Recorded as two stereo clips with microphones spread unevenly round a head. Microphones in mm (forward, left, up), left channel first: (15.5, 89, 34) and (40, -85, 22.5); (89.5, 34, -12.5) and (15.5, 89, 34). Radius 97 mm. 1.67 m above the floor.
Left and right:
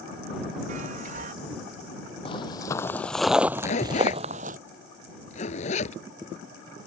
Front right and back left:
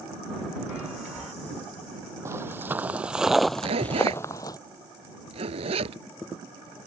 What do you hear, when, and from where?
0.7 s a chime: 135° right
2.2 s footsteps: 155° left; by 4.6 s 120° right
3.6 s a zipper: 155° left